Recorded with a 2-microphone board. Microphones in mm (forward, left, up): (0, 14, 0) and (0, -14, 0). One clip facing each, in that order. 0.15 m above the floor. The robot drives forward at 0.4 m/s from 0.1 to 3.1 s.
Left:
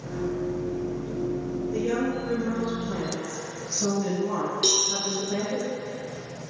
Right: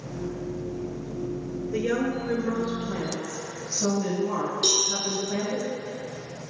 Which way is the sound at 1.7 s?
35° right (ahead or behind).